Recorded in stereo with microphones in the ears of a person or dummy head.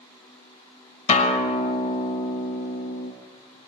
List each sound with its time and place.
1.1 s a guitar: 40° left (ahead or behind), 2 m